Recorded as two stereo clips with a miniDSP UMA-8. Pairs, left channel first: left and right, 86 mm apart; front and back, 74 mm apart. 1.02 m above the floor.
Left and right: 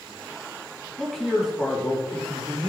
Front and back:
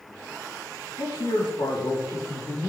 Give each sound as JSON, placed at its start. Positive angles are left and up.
{"t": 1.0, "sound": "a man speaking", "azimuth_deg": 0, "distance_m": 2.5}